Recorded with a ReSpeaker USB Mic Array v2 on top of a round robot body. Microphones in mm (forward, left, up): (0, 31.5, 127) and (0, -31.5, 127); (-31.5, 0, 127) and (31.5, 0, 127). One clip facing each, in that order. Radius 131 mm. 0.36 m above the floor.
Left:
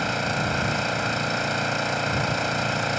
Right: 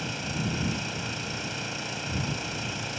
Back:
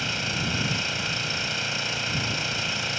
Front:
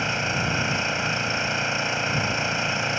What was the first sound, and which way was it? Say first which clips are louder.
An engine running: left 8 dB, front 4 dB; 65° left.